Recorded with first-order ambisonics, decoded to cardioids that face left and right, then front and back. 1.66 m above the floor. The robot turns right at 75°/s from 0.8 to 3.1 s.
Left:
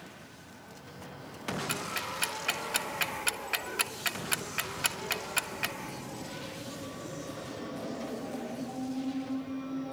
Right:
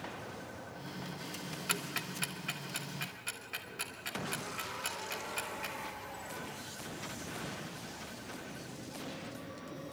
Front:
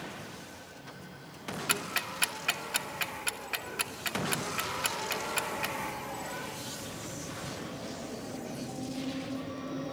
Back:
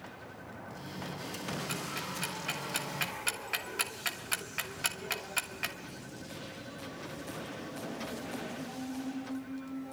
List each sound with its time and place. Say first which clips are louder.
1.7 s ticking: right 2 dB, front 5 dB; 10° right, 1.0 m; by 5.8 s 95° left, 1.0 m